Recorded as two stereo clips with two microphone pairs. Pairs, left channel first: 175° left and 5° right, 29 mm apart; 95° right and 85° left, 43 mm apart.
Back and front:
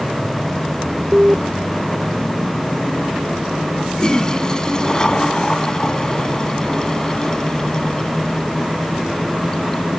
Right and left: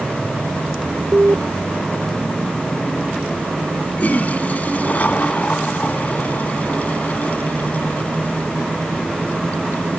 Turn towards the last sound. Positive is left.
turn(degrees=-130)